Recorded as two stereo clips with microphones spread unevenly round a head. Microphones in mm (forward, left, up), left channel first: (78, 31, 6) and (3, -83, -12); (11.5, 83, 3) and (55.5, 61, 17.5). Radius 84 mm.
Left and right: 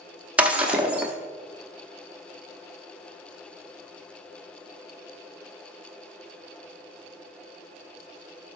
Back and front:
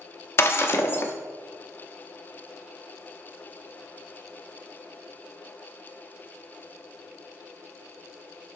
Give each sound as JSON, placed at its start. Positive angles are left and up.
{"t": 0.4, "sound": "breaking glass", "azimuth_deg": 150, "distance_m": 0.9}